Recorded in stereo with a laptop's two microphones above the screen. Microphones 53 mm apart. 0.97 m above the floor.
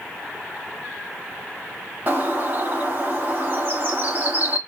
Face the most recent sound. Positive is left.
turn(degrees=-30)  # may be behind; listen again after turning